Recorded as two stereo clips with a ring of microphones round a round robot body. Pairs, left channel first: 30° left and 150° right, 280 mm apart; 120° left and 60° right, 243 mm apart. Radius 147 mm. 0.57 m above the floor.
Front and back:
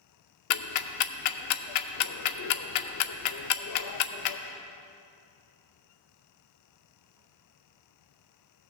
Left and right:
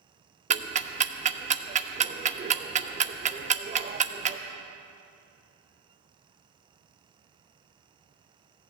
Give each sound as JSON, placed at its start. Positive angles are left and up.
{"t": 0.5, "sound": "ticking", "azimuth_deg": 5, "distance_m": 0.6}